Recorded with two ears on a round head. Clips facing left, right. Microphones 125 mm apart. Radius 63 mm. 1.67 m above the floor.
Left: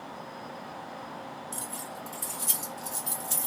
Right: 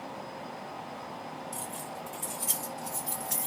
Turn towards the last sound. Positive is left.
turn(degrees=25)  # may be behind; listen again after turning